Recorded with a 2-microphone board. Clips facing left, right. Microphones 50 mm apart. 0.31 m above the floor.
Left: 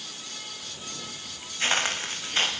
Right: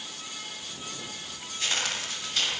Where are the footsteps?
30° left (ahead or behind), 9.5 m.